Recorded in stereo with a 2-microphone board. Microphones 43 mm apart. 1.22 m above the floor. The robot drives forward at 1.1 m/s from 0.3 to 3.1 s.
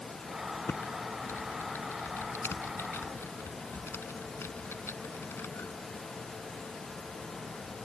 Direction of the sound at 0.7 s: 60° left (ahead or behind).